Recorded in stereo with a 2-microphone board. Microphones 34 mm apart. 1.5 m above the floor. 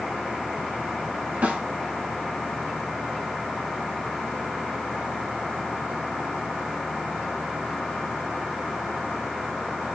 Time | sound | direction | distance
1.4 | a snare drum | 60° right (ahead or behind) | 3.5 m